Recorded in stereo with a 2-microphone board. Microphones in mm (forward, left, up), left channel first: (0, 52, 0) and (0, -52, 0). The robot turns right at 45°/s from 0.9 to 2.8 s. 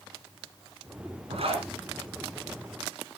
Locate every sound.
1.3 s a zipper: 75° right (ahead or behind), 2 m; by 1.7 s 60° right (ahead or behind), 2 m